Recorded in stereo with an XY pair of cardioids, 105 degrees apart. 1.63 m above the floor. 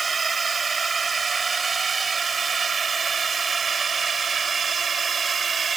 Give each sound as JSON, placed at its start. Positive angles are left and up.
{"t": 0.0, "sound": "a drone", "azimuth_deg": -30}